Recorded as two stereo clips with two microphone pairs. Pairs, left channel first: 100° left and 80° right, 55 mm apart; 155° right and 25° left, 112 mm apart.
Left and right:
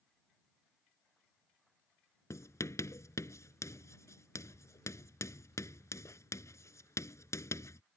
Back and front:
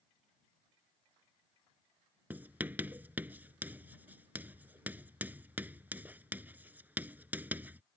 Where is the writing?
95° left.